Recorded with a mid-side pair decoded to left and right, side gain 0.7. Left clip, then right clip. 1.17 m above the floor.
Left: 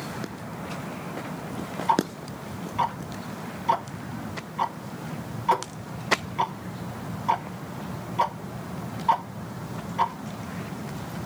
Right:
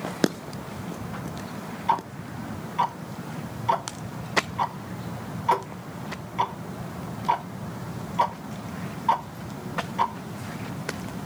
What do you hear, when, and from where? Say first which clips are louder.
1.9 s ticking: left 1 dB; 5° right, 1.1 m